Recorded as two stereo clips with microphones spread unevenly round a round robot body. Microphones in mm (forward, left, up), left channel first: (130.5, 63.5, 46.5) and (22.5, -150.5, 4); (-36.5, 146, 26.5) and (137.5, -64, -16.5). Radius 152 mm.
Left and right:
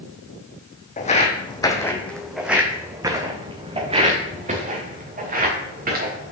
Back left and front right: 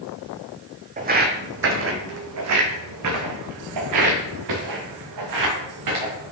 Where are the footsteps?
10° left, 1.3 m; by 6.3 s 65° right, 3 m.